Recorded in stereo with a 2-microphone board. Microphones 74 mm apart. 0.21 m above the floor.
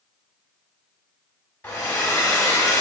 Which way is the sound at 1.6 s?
25° left (ahead or behind).